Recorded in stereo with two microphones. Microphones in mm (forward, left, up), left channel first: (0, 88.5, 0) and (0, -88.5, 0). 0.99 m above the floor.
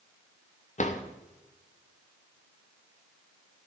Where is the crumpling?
I don't hear crumpling.